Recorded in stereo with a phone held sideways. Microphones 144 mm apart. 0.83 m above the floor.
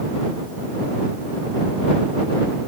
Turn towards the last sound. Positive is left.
No sound to turn to.